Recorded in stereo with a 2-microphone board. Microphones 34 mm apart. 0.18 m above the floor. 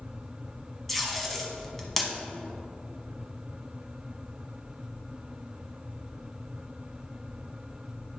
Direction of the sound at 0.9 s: 5° left (ahead or behind).